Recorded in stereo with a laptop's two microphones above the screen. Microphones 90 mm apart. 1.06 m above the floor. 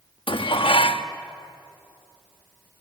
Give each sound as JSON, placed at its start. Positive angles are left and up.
{"t": 0.3, "sound": "dishes clattering", "side_deg": 75, "distance_m": 0.9}